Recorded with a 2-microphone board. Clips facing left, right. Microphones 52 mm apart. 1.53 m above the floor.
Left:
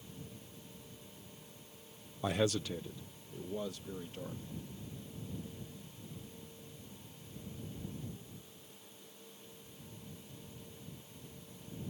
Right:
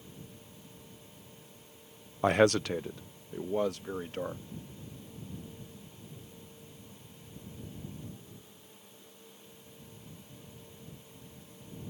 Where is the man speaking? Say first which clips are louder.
Right 9 dB; 50° right (ahead or behind); by 4.4 s 70° right (ahead or behind).